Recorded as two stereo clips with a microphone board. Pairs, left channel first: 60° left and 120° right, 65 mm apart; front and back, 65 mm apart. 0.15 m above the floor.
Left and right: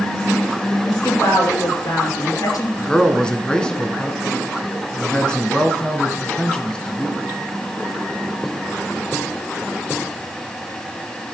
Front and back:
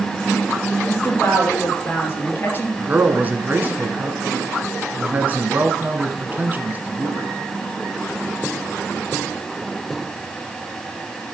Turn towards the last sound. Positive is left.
turn(degrees=130)